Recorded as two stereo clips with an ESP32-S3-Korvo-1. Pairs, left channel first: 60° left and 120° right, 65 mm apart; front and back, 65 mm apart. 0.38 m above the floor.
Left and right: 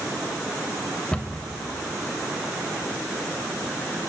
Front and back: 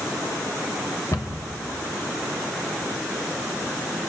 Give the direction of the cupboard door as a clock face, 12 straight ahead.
12 o'clock.